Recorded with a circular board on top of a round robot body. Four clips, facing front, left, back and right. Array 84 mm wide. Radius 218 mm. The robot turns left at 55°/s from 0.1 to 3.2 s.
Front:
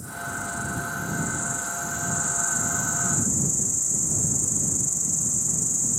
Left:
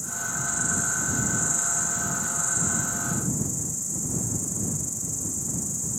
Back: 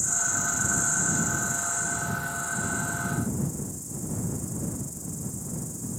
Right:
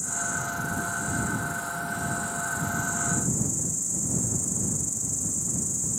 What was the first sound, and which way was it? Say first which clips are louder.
An insect: right 2 dB, even; 175° left.